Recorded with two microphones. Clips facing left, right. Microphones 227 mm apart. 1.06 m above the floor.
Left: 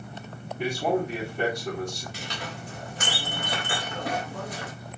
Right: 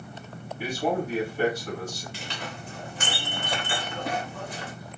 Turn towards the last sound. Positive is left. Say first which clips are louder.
# left 1 dB
turn(degrees=40)  # may be behind; listen again after turning